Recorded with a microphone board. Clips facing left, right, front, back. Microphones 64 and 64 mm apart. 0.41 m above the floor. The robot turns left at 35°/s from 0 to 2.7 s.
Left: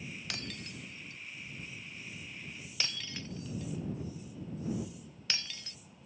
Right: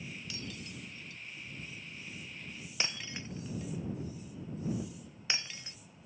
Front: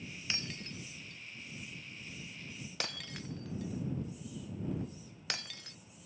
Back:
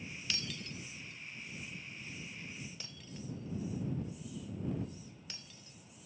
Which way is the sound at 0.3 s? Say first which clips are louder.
Left 1 dB, front 1 dB; 65° left.